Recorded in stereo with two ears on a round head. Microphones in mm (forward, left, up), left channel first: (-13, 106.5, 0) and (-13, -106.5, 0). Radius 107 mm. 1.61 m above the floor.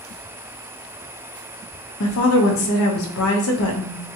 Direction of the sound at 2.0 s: 65° left (ahead or behind).